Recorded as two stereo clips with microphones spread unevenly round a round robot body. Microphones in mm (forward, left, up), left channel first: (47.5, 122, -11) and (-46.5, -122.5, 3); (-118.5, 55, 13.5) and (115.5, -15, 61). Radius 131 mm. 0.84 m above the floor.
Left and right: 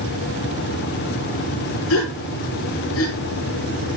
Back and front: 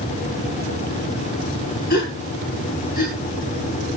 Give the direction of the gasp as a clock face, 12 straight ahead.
8 o'clock.